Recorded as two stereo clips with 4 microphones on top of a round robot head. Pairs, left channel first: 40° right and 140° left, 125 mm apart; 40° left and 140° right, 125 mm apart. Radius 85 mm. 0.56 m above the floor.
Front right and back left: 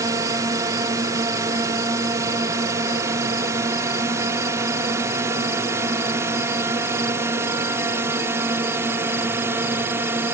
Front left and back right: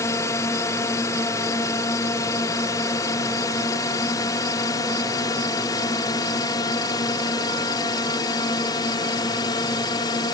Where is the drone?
90° left; by 10.3 s 80° left.